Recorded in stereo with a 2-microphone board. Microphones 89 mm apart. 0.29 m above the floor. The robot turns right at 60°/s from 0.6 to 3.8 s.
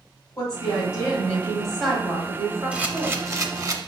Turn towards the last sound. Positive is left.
turn(degrees=-95)